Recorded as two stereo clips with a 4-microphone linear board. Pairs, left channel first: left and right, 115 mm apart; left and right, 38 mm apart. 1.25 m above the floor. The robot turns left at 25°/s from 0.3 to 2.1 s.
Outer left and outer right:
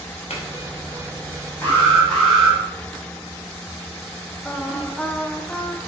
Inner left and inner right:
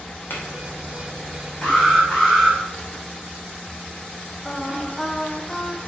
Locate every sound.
0.3 s a clink: 65° left (ahead or behind), 2 m; by 0.5 s 60° left (ahead or behind), 2 m
1.6 s an alarm: 15° left (ahead or behind), 3.5 m; by 2.6 s 5° left (ahead or behind), 3.5 m
4.5 s singing: 10° left (ahead or behind), 0.8 m